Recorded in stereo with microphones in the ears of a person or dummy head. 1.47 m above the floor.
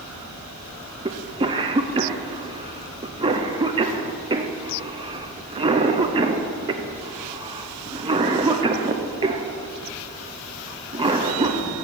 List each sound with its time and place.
1.1 s a cough: 20° right (ahead or behind), 0.6 m